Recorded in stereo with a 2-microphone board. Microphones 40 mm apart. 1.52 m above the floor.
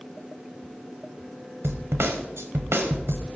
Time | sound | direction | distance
1.6 | a snare drum | 80° right | 1.0 m